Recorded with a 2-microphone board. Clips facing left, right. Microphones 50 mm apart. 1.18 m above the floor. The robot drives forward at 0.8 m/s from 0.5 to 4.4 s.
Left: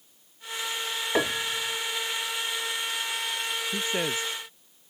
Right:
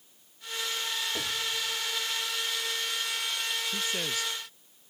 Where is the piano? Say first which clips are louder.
Left 6 dB; 55° left (ahead or behind); by 1.8 s 60° left (ahead or behind).